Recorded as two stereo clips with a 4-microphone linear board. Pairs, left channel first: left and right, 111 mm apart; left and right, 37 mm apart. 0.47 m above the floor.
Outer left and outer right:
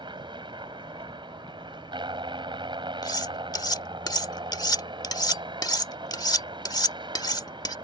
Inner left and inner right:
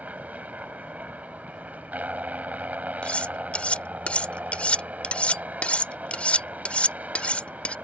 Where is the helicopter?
45° right (ahead or behind).